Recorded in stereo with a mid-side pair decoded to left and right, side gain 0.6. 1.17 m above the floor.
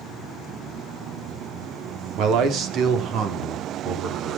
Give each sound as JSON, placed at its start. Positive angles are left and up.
{"t": 2.2, "sound": "a man speaking", "azimuth_deg": -60, "distance_m": 3.0}